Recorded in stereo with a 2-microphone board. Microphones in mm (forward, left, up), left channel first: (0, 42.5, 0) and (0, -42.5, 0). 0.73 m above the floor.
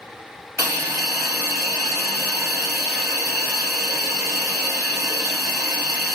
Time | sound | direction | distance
0.6 | a hiss | 35° right (ahead or behind) | 1.0 m